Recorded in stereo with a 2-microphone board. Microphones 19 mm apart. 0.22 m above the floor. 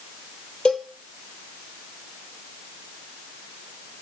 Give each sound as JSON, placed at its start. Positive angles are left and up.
{"t": 0.7, "sound": "a cowbell", "side_deg": 60, "distance_m": 0.9}